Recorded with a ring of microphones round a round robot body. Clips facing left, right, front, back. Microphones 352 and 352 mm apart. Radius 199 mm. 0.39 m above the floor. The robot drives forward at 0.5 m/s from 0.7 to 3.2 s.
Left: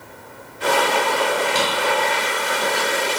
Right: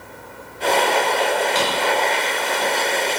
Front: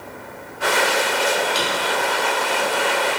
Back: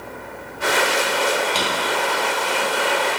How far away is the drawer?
About 1.8 m.